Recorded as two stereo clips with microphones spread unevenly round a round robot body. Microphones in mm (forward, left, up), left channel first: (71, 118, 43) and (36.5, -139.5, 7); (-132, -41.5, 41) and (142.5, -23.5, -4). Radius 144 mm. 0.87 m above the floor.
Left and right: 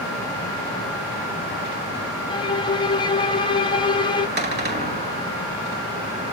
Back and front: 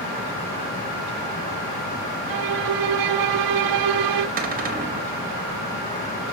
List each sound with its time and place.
2.3 s a violin: 10° left, 0.8 m
4.4 s a cupboard door: 50° right, 1.9 m